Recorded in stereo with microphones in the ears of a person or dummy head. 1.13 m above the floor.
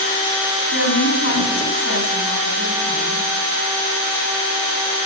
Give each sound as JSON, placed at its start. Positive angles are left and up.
{"t": 0.7, "sound": "a woman speaking", "side_deg": 60, "distance_m": 8.0}